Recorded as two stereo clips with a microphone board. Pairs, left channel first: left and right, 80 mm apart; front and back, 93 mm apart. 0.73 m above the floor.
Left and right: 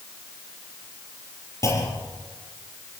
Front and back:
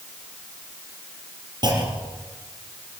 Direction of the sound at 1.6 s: 140° left.